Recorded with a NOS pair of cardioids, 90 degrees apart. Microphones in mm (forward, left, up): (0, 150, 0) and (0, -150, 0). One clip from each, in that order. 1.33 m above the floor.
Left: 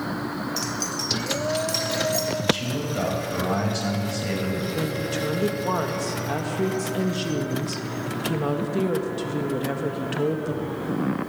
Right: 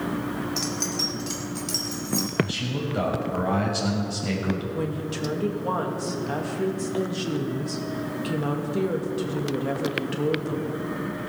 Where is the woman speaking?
20° left, 2 m.